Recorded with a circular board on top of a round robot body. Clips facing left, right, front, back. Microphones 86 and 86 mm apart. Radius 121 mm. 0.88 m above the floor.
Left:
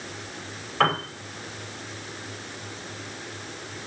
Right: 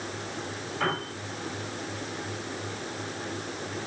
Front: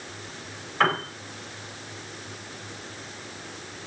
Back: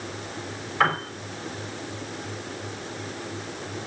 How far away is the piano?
About 5 m.